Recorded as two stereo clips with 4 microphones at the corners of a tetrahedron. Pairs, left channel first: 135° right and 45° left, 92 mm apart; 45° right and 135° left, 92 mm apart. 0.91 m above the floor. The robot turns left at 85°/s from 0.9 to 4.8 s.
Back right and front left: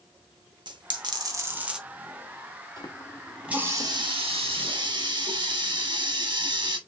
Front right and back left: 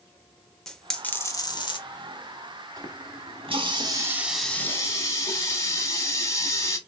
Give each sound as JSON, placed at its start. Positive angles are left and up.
{"t": 0.7, "sound": "a dropped coin", "azimuth_deg": 35, "distance_m": 0.8}
{"t": 2.8, "sound": "a running tap", "azimuth_deg": -175, "distance_m": 1.2}